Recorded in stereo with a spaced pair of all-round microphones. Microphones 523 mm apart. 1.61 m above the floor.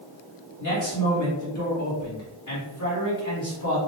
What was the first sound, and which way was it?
A man speaking, 35° left (ahead or behind).